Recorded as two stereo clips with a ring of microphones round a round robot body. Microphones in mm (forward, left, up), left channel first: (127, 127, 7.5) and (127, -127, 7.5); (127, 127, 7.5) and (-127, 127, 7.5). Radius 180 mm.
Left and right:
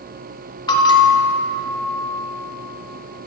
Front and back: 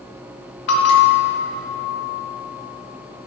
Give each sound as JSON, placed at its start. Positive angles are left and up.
{"t": 0.7, "sound": "a bell", "azimuth_deg": 15, "distance_m": 0.6}